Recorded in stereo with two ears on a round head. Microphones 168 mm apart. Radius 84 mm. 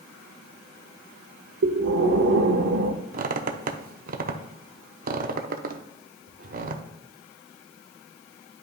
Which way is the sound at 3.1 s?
45° right (ahead or behind).